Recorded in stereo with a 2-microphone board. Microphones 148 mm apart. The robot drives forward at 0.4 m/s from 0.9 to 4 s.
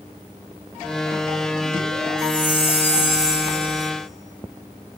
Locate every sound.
2.2 s a chime: 35° left (ahead or behind), 1.9 m; by 3.9 s 50° left (ahead or behind), 1.4 m